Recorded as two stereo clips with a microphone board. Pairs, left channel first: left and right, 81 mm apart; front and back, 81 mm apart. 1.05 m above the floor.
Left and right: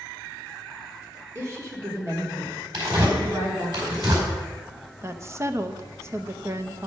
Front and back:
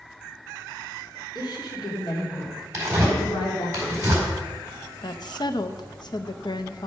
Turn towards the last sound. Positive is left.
turn(degrees=-30)